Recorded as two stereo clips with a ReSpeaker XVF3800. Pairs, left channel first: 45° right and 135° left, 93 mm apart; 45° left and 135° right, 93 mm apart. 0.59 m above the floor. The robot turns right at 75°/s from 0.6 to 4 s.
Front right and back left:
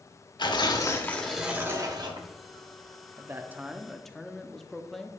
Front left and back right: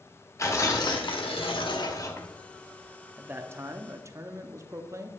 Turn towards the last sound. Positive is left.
turn(degrees=-130)